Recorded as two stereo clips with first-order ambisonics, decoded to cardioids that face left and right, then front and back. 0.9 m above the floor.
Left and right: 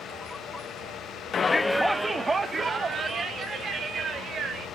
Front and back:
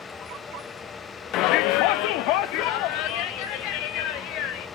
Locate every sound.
1.3 s a shout: 30° left, 0.5 m; by 4.7 s 30° right, 3.5 m